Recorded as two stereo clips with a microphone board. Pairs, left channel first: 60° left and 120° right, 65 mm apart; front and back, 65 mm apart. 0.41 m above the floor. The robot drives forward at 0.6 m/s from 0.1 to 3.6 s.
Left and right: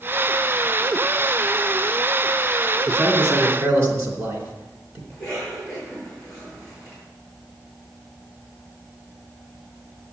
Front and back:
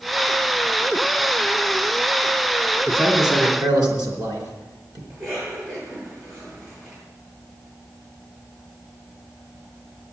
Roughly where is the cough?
Behind left.